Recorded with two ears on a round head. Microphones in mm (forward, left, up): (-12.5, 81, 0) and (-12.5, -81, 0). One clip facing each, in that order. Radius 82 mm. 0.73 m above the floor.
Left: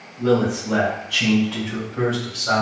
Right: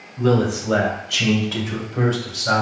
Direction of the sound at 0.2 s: 70° right (ahead or behind).